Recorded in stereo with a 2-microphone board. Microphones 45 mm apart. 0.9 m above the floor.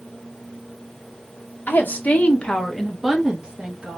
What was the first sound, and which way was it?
A woman speaking, 50° left (ahead or behind).